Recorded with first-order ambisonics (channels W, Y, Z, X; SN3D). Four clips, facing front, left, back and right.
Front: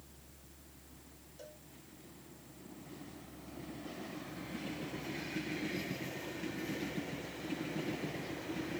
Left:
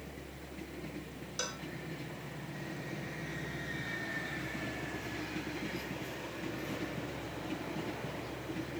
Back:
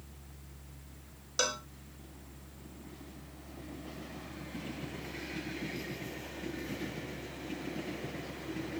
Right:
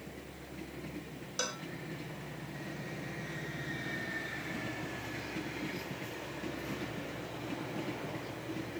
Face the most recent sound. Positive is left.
turn(degrees=-175)